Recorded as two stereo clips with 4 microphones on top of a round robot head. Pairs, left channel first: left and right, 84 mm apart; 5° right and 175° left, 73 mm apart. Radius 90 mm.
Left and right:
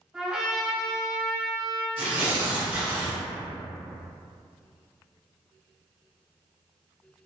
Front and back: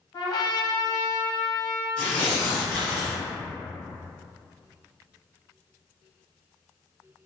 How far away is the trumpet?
About 0.8 m.